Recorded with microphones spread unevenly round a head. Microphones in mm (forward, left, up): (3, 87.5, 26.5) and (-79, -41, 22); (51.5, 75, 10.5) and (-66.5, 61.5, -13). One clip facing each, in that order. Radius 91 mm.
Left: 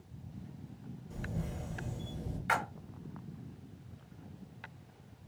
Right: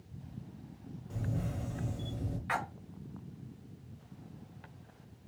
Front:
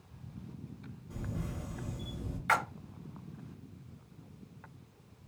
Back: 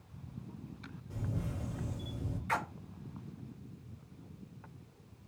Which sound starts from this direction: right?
A camera shutter, at 1.1 s.